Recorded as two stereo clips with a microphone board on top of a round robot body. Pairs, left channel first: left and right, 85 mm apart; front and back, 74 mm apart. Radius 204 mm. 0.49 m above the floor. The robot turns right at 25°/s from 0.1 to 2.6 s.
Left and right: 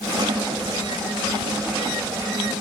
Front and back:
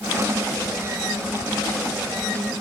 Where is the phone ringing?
I don't hear a phone ringing.